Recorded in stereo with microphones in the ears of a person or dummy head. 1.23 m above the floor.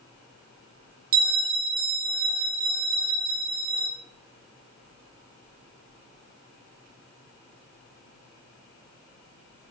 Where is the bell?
35° right (ahead or behind), 0.9 m.